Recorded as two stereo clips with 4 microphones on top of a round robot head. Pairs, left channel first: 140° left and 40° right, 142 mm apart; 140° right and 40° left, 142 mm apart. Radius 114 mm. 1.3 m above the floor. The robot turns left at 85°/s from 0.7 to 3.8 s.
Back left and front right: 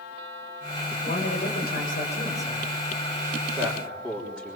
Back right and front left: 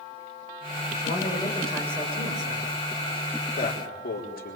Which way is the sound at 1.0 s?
170° right.